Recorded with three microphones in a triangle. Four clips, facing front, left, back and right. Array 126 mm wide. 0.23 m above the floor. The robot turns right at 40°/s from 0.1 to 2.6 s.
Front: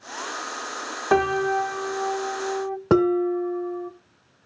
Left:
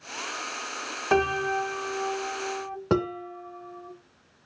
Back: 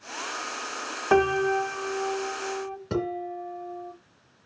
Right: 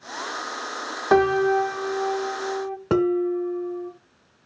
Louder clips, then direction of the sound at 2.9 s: Right 7 dB, front 11 dB; 5° right.